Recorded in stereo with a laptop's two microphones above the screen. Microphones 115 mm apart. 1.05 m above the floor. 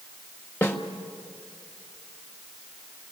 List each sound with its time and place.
0.6 s a snare drum: 15° left (ahead or behind), 1.8 m